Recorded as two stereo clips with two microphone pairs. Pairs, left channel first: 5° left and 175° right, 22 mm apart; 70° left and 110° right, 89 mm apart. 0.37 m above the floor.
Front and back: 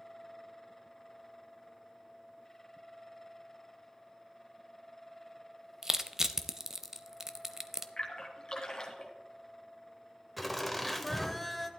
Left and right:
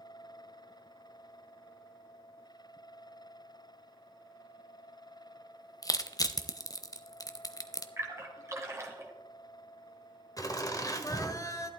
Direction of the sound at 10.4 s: 90° left.